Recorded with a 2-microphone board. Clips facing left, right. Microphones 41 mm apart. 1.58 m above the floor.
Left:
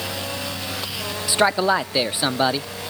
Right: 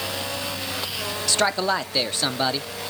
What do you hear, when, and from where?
1.3 s a man speaking: 15° left (ahead or behind), 0.5 m